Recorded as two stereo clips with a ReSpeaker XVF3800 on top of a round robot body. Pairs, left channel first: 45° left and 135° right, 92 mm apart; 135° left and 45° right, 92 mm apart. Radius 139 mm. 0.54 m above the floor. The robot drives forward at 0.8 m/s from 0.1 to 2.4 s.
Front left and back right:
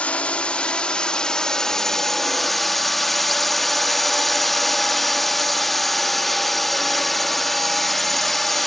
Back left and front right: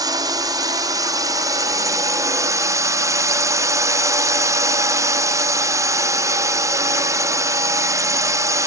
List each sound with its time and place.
0.0 s a drone: 25° right; by 8.7 s 40° right